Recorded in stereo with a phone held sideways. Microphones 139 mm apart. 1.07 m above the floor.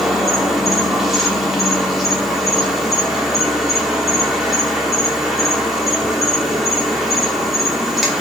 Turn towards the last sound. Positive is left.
turn(degrees=0)  # may be behind; listen again after turning